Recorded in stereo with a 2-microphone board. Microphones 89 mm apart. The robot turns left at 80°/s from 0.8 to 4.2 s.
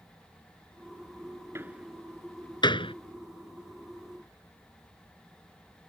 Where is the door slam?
30° right (ahead or behind); by 2.9 s 80° left.